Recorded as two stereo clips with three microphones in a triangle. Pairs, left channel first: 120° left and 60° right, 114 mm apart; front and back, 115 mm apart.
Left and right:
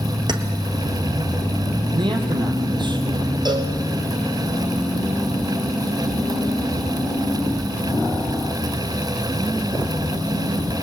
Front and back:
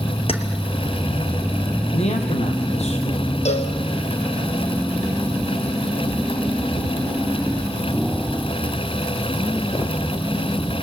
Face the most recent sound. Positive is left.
turn(degrees=-10)